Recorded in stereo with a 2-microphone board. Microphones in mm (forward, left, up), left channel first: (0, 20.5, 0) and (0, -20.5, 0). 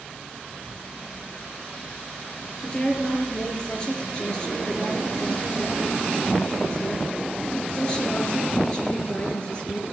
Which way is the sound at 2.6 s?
25° left (ahead or behind).